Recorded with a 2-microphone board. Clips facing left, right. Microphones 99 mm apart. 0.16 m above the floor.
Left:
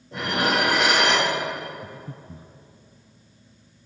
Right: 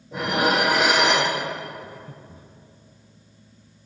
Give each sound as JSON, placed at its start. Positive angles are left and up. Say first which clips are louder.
{"t": 0.1, "sound": "dishes clattering", "louder": "right 2 dB", "side_deg": -5, "distance_m": 3.0}
{"t": 1.8, "sound": "breathing", "louder": "left 1 dB", "side_deg": 35, "distance_m": 0.6}